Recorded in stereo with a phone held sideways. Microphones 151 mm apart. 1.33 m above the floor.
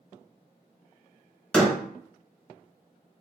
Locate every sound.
1.5 s a door slam: 5° left (ahead or behind), 0.9 m